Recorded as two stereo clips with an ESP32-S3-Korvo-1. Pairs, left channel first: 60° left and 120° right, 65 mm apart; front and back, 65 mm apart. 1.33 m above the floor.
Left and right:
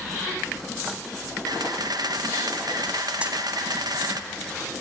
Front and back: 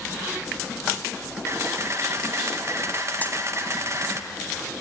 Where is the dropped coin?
55° right, 1.8 m.